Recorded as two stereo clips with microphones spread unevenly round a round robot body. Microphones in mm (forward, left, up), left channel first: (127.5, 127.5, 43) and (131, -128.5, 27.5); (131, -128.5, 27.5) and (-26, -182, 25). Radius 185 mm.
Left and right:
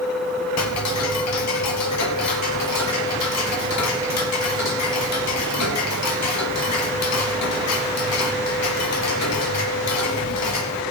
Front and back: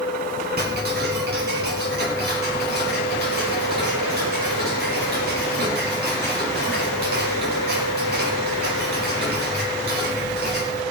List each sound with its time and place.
0.6 s ticking: 140° left, 0.7 m